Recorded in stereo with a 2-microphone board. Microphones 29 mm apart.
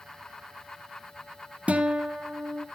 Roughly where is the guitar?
Right.